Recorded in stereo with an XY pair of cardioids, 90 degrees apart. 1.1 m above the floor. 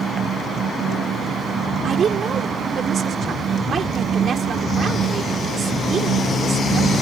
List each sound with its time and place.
0.0 s a fan: 65° right
1.8 s a woman speaking: 60° right